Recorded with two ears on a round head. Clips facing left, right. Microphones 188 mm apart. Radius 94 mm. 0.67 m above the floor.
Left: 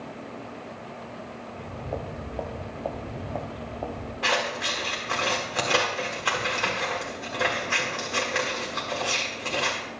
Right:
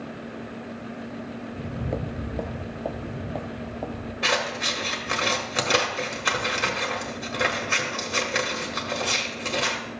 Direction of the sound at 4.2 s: 25° right (ahead or behind).